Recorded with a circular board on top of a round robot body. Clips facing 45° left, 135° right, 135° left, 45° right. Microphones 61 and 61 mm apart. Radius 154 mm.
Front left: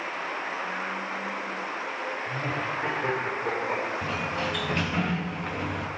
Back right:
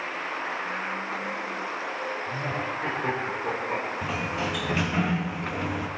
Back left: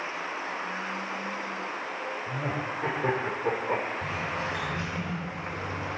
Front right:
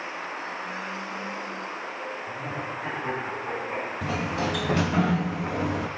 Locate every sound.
2.3 s laughter: 130° left, 4.5 m; by 3.9 s 120° left, 3.5 m
4.0 s a sliding door: 50° right, 0.5 m